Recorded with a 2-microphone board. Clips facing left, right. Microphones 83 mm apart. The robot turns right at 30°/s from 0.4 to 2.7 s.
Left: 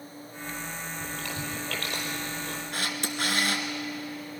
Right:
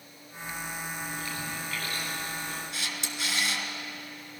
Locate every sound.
1.0 s chewing: 60° left (ahead or behind), 5 m; by 2.6 s 65° left (ahead or behind), 5 m
2.7 s a camera shutter: 50° left (ahead or behind), 2 m